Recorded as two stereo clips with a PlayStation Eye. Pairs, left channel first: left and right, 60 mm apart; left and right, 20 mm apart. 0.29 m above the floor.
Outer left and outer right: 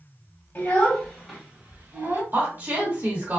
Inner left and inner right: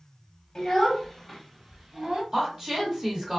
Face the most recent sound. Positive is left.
turn(degrees=-35)  # may be behind; listen again after turning